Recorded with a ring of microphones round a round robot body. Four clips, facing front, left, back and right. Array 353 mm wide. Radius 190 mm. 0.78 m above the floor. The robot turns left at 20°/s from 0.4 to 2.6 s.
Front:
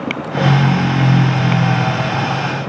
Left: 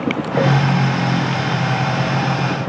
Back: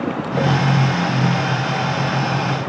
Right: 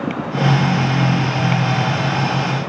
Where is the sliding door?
I don't hear a sliding door.